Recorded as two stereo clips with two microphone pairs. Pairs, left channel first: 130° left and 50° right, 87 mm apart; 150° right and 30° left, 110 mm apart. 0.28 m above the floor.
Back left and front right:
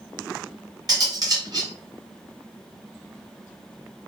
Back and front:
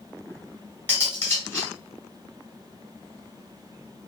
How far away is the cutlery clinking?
About 1.1 m.